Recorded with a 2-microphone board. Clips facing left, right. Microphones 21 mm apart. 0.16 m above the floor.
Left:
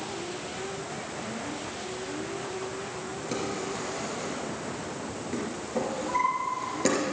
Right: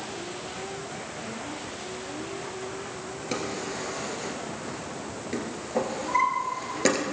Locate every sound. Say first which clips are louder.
3.3 s a drawer: right 1 dB; 25° right (ahead or behind), 1.8 m